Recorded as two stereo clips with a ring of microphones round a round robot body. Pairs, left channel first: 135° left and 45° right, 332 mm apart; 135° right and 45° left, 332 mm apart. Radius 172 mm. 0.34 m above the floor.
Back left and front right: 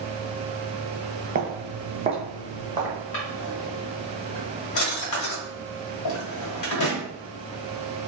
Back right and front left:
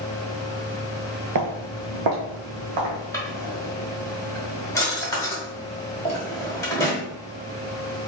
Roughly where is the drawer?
Behind left.